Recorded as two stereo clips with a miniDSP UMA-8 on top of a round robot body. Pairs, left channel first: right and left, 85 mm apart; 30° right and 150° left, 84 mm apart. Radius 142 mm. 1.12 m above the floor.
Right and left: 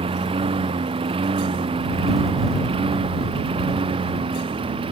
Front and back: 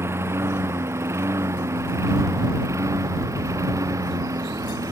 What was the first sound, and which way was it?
A lawn mower, 90° left.